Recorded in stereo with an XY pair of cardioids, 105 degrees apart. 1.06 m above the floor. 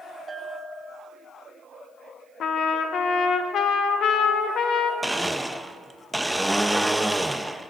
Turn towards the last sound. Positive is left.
turn(degrees=-5)